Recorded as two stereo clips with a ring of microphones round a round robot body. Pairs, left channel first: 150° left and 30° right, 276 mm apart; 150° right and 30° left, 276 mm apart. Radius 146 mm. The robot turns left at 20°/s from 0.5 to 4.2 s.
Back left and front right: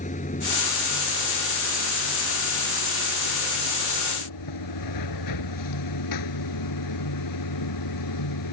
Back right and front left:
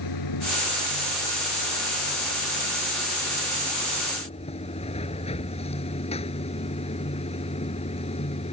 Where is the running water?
145° right; by 8.5 s 140° left.